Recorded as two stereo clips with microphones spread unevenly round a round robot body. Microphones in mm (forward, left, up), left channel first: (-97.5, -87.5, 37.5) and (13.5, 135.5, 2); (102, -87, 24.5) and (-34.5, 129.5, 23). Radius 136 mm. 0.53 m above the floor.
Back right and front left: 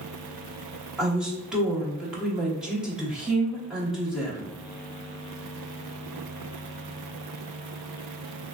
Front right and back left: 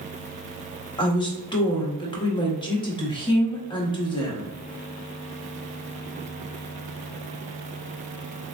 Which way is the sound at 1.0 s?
5° right.